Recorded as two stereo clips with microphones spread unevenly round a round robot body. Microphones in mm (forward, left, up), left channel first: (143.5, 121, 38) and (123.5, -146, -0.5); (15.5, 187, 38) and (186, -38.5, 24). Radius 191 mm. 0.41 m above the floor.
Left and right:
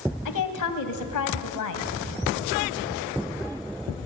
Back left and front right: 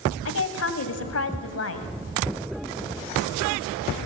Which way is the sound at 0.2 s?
95° left.